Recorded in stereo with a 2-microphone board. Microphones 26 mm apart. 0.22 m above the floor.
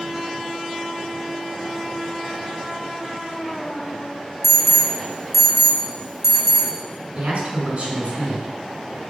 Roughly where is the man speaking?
Right.